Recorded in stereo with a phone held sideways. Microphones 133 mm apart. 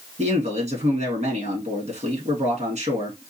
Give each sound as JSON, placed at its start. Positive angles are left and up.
{"t": 0.2, "sound": "a man speaking", "side_deg": -60, "distance_m": 1.9}